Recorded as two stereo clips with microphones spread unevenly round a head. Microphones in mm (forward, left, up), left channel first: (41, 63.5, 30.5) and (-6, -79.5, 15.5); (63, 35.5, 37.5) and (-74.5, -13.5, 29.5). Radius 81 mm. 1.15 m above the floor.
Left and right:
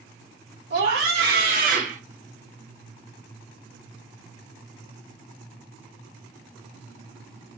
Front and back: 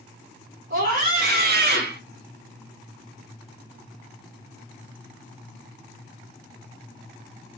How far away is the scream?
About 2.5 m.